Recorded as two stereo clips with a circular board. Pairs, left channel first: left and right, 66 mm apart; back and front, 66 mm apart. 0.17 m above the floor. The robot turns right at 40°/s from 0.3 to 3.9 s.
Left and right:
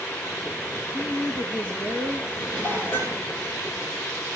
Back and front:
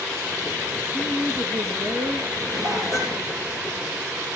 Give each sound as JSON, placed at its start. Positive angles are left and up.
{"t": 0.9, "sound": "a woman speaking", "azimuth_deg": -55, "distance_m": 3.5}
{"t": 2.3, "sound": "dishes clattering", "azimuth_deg": 10, "distance_m": 3.0}